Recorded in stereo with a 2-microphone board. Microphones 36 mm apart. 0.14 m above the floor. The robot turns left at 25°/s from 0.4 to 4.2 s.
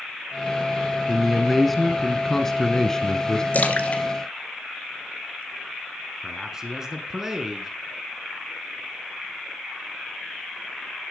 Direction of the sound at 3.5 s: 45° left (ahead or behind).